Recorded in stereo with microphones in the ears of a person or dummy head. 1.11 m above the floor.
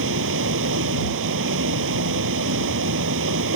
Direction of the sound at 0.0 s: 60° right (ahead or behind).